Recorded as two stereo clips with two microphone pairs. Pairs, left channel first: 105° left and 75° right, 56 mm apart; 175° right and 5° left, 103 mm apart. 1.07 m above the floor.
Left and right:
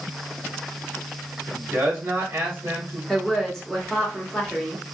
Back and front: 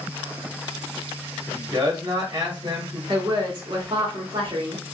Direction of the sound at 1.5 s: 35° right.